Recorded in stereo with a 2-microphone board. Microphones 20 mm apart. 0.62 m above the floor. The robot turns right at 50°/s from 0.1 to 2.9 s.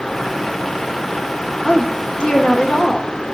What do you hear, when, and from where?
1.6 s a woman speaking: 70° left, 1.8 m; by 3.1 s 135° left, 1.8 m